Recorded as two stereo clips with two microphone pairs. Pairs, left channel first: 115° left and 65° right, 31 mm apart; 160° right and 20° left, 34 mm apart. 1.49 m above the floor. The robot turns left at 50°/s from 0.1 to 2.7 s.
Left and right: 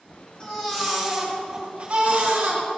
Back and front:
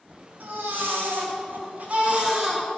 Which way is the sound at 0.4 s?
55° left.